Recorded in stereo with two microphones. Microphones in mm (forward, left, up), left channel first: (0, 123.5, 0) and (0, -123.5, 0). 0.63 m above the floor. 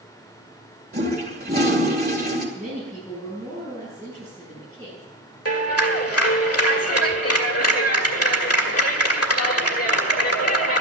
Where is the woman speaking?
10° left (ahead or behind), 8 m.